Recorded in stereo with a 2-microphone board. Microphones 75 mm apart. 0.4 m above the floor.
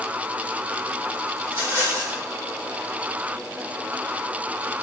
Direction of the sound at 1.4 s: 35° right (ahead or behind).